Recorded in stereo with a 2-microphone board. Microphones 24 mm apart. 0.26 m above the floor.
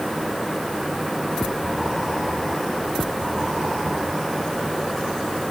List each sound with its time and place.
Only background noise.